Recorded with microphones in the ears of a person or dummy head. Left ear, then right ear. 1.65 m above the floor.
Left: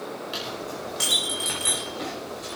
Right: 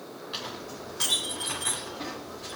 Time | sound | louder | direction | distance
0.3 | a clink | left 2 dB | 15° left (ahead or behind) | 4.5 m